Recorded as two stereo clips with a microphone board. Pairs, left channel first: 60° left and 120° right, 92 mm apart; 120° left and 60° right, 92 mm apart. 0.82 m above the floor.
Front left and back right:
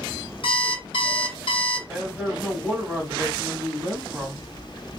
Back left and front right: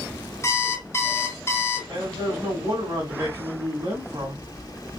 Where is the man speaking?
45° right, 1.6 m.